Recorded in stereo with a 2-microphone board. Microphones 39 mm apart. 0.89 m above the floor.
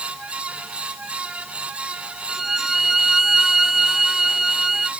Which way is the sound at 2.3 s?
10° right (ahead or behind).